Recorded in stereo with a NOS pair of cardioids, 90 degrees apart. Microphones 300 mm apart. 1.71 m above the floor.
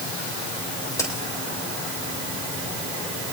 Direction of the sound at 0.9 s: 10° left.